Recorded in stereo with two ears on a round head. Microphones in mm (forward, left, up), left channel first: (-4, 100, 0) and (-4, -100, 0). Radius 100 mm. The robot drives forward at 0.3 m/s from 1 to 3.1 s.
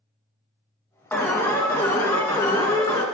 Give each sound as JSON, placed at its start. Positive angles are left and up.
{"t": 1.1, "sound": "an alarm", "side_deg": 10, "distance_m": 1.3}